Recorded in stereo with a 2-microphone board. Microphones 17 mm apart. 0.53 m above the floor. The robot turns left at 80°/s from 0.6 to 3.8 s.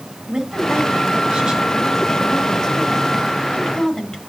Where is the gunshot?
I don't hear a gunshot.